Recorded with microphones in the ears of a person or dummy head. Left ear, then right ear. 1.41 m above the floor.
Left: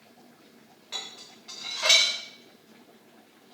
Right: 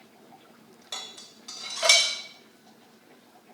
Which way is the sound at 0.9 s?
15° right (ahead or behind).